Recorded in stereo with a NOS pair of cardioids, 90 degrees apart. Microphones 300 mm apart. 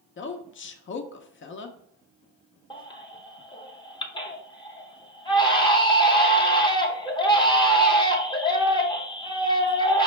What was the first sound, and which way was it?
A woman speaking, 40° left.